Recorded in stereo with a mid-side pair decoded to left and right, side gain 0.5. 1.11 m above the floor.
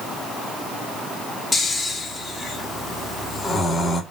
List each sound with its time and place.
1.5 s snoring: 40° left, 1.9 m